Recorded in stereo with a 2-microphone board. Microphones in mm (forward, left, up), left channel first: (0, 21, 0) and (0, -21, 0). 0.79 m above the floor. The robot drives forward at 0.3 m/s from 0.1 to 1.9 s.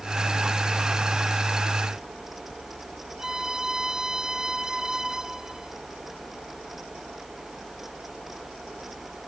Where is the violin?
15° right (ahead or behind).